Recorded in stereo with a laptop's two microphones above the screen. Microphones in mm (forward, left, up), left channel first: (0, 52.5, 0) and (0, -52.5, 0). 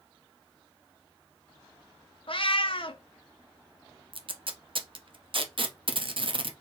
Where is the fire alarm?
I don't hear a fire alarm.